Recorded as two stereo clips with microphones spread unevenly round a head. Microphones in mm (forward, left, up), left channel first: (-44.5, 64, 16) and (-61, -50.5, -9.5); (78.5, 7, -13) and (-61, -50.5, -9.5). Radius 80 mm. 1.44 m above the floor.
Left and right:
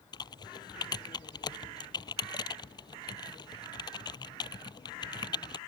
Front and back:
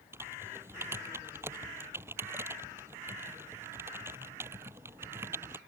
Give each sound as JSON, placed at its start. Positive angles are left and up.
{"t": 0.1, "sound": "typing on a keyboard", "azimuth_deg": 125}